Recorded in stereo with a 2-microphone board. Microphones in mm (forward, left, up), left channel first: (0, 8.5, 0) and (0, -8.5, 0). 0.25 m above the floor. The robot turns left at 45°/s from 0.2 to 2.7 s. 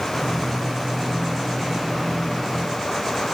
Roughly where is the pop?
I don't hear a pop.